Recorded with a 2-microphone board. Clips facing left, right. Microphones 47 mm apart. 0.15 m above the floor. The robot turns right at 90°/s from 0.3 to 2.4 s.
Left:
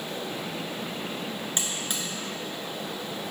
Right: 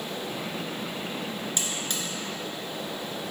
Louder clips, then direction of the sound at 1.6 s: Even; 35° left (ahead or behind).